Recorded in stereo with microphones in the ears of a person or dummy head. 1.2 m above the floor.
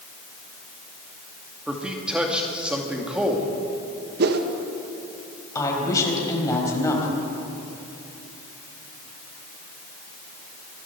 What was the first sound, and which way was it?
A man speaking, 5° right (ahead or behind).